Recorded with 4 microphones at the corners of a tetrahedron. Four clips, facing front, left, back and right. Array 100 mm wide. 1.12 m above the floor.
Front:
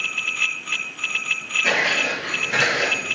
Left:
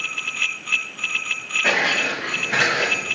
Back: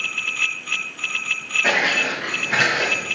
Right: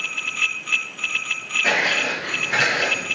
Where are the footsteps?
150° left, 4 m; by 3.2 s 140° left, 3.5 m.